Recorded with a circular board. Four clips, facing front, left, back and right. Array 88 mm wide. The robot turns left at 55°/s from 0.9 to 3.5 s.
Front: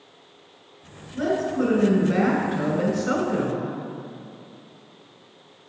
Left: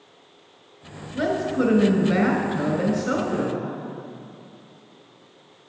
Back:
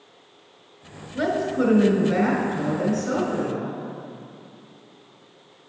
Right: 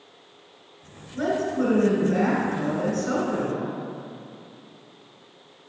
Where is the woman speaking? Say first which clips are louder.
Left 1 dB, back 1 dB; 135° left, 1.6 m; by 3.7 s 5° left, 1.6 m.